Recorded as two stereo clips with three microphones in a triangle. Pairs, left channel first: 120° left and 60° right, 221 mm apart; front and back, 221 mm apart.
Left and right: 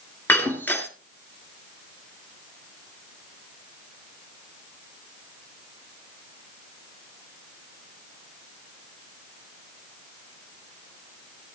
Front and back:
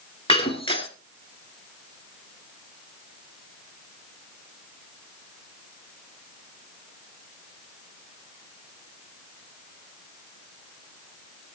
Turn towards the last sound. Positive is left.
turn(degrees=45)